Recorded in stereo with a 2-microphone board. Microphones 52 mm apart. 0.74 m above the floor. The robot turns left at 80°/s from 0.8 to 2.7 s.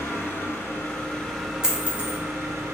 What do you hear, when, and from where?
0.0 s an engine running: 50° left, 0.9 m; by 2.8 s 100° right, 0.9 m
1.6 s a dropped coin: 10° right (ahead or behind), 1.0 m; by 2.2 s 45° right (ahead or behind), 1.0 m